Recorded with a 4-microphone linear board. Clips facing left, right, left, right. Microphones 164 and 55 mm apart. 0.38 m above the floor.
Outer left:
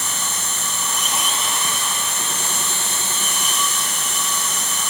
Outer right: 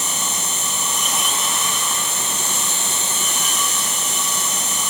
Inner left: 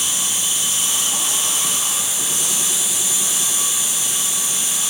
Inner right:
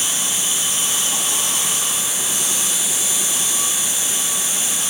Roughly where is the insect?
Left.